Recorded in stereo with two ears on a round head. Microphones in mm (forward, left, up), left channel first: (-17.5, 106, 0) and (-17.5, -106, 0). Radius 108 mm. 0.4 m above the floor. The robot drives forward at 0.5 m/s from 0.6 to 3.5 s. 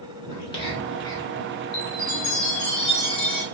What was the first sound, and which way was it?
Whispering, 25° left (ahead or behind).